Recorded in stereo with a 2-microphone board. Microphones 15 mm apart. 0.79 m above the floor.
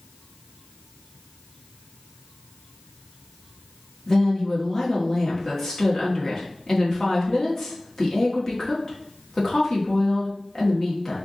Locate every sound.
4.1 s a woman speaking: 30° left (ahead or behind), 1.6 m